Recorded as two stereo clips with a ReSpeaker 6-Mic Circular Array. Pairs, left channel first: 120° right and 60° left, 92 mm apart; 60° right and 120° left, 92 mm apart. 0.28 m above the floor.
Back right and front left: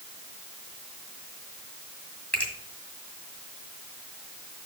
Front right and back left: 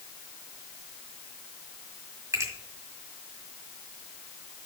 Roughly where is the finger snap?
Behind.